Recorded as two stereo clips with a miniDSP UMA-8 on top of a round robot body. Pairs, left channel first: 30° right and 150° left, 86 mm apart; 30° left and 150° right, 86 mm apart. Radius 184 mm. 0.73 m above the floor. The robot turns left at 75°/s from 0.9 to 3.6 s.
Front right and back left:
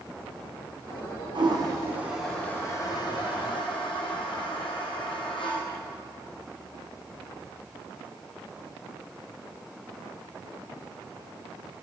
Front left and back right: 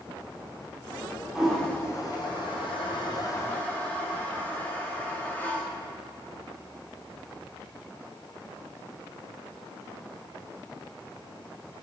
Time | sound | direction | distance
1.4 | a toilet flushing | 130° left | 3.5 m